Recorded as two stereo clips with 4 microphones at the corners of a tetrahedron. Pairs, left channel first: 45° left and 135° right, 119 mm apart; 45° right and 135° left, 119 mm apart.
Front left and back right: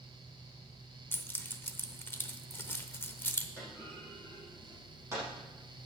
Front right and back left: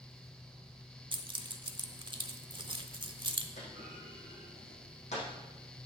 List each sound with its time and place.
1.1 s keys jangling: 115° left, 0.8 m
3.6 s a clunk: 65° right, 6 m